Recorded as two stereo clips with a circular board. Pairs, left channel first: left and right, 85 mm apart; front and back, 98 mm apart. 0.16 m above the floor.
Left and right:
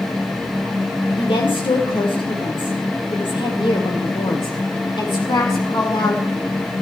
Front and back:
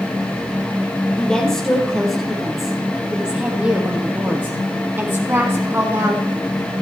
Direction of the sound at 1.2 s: 80° left.